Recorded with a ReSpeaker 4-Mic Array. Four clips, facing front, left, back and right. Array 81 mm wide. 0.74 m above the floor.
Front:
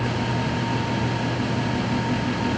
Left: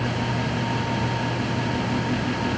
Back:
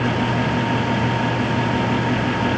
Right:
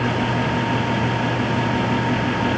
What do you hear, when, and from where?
Only background noise.